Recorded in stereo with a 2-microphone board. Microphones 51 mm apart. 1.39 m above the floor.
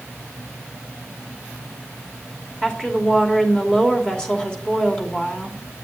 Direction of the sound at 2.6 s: 15° left (ahead or behind).